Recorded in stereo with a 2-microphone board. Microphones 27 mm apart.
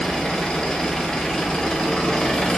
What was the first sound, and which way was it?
An engine running, 30° left (ahead or behind).